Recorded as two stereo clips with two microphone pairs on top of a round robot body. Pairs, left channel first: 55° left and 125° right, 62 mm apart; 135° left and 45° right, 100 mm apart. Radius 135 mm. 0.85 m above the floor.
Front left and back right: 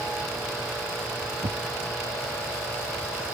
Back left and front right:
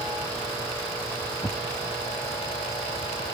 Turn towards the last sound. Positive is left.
turn(degrees=-150)